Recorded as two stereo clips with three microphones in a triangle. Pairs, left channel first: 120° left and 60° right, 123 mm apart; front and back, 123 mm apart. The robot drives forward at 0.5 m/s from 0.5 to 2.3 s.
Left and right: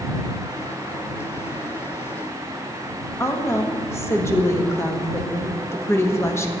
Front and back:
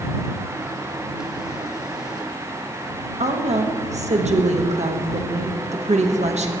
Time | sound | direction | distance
3.2 | a woman speaking | 175° right | 1.0 m